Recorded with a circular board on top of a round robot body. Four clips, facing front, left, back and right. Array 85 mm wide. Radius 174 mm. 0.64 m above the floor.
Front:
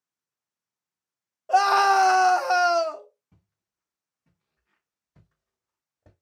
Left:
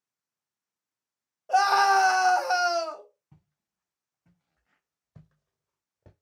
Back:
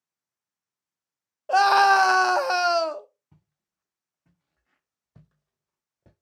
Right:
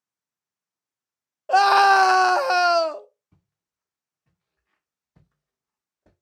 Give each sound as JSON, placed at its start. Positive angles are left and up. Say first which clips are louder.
{"t": 1.5, "sound": "a scream", "louder": "right 5 dB, back 1 dB", "azimuth_deg": -115, "distance_m": 0.9}
{"t": 3.3, "sound": "footsteps", "louder": "left 4 dB, back 3 dB", "azimuth_deg": 140, "distance_m": 3.5}